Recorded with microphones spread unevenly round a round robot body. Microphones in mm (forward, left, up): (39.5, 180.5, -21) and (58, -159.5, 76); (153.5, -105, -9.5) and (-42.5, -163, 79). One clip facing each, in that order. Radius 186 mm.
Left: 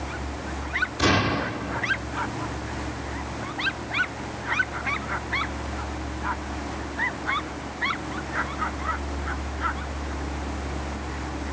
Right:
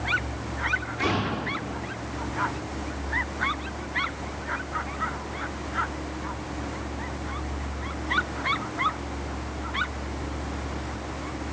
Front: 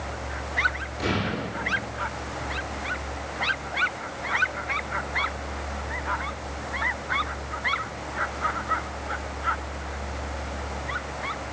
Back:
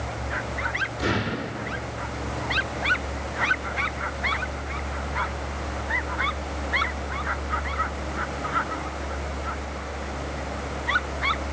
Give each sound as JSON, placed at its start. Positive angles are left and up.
{"t": 1.0, "sound": "an explosion", "azimuth_deg": 100, "distance_m": 2.0}